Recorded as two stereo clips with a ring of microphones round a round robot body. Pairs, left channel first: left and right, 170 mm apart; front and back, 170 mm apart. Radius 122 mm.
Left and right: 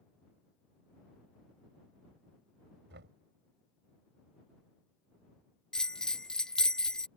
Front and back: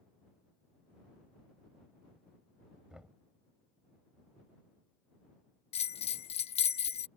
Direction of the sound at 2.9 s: 95° right.